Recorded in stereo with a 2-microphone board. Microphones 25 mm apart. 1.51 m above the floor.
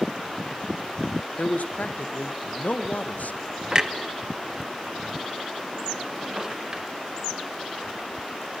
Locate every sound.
1.4 s a man speaking: 80° left, 1.4 m
3.7 s a clunk: 30° right (ahead or behind), 1.2 m